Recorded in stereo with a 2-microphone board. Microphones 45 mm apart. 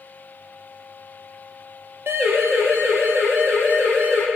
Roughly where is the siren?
Right.